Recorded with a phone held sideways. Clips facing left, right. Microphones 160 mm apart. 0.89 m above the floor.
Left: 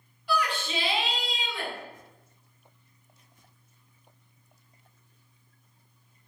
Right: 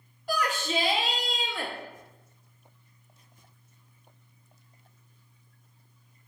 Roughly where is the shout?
Right.